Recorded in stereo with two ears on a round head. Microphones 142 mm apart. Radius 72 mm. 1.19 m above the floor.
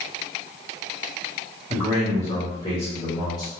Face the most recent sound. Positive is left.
turn(degrees=20)  # may be behind; listen again after turning